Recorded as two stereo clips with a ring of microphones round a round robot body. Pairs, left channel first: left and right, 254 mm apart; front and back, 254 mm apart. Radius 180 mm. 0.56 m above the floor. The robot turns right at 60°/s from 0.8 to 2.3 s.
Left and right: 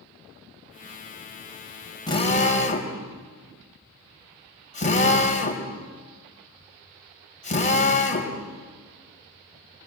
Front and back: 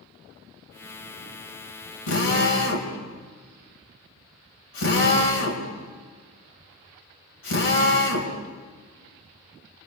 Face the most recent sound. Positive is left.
turn(degrees=30)